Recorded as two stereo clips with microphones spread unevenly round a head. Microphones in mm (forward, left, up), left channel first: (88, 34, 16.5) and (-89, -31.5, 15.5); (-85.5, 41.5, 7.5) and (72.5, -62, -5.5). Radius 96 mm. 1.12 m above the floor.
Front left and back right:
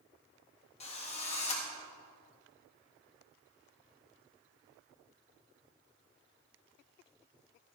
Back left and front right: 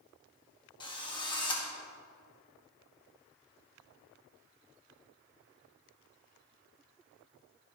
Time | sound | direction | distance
0.8 | a drill | 80° left | 1.8 m